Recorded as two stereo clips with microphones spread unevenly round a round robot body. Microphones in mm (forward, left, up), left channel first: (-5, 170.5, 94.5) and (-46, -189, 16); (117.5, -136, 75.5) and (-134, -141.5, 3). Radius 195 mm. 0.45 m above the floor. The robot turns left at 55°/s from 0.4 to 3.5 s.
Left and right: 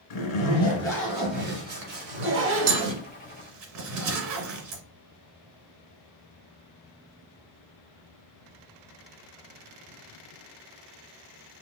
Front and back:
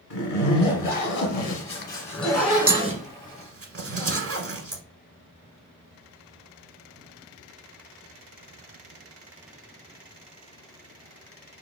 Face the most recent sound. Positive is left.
turn(degrees=-140)